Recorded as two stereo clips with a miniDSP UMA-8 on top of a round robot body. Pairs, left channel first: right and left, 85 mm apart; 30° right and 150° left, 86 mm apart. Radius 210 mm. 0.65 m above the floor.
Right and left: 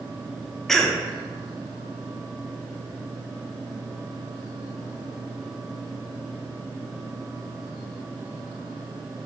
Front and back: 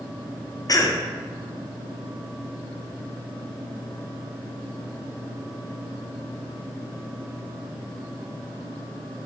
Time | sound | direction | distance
0.7 | a cough | 5° right | 0.6 m